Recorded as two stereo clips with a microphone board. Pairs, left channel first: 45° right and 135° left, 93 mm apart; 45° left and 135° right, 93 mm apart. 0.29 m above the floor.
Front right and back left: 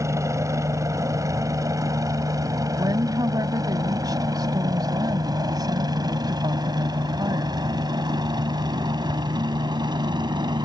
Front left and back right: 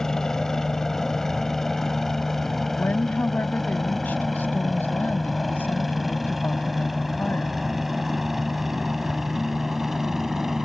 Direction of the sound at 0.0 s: 125° left.